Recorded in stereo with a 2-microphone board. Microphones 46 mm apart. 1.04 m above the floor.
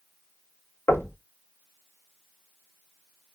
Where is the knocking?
70° left (ahead or behind), 1.2 m.